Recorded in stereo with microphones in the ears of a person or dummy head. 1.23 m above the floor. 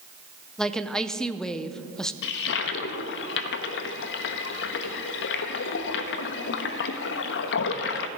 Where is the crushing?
No crushing in this recording.